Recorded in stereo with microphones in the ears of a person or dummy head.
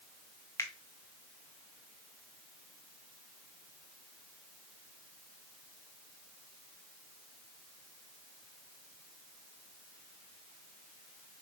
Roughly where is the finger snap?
Centre.